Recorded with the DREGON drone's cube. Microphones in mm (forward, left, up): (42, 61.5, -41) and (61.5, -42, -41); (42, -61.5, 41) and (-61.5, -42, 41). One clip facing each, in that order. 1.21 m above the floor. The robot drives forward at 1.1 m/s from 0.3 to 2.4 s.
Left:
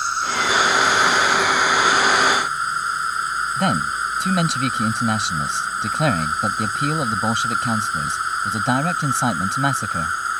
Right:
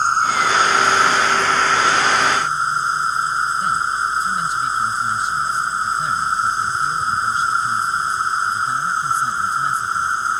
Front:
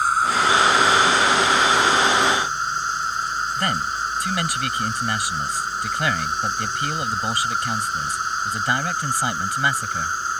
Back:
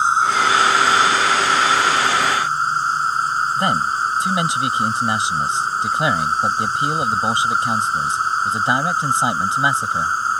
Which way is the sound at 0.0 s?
125° right.